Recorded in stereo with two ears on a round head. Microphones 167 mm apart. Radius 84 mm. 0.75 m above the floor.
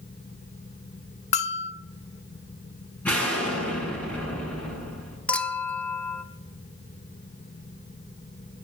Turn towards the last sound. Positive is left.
turn(degrees=5)  # may be behind; listen again after turning